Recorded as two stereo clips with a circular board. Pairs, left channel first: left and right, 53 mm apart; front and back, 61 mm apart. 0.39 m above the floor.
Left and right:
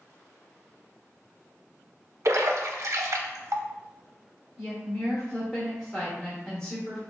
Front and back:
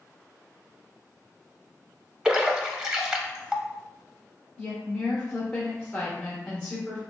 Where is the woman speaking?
35° left, 0.9 m.